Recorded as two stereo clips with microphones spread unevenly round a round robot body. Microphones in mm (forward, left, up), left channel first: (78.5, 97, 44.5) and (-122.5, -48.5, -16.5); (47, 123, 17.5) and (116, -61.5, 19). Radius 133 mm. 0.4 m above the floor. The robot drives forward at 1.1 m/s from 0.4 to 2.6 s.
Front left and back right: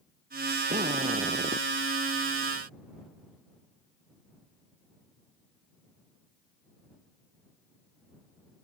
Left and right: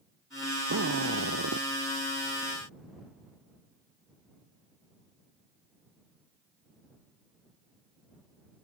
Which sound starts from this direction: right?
A drill, at 0.7 s.